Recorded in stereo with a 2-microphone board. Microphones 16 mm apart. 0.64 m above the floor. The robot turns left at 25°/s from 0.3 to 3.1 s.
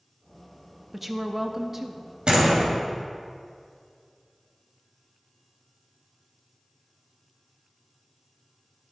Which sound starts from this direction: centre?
A woman speaking, at 0.9 s.